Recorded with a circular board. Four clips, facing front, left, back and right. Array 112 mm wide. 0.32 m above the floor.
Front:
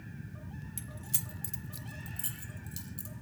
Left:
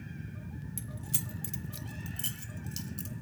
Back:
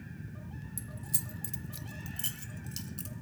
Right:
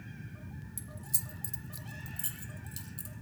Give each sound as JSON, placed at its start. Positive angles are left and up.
{"t": 0.8, "sound": "keys jangling", "azimuth_deg": 30, "distance_m": 1.1}